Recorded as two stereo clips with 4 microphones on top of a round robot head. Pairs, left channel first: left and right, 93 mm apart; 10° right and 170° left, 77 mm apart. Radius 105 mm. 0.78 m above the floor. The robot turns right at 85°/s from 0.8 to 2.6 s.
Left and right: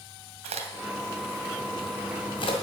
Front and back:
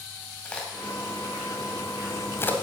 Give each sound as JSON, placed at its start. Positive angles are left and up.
{"t": 0.5, "sound": "a crack", "azimuth_deg": -90, "distance_m": 1.9}